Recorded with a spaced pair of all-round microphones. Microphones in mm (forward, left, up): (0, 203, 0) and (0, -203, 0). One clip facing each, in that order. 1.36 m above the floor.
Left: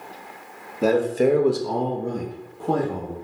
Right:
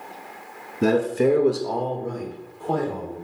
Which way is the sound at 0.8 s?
30° right (ahead or behind).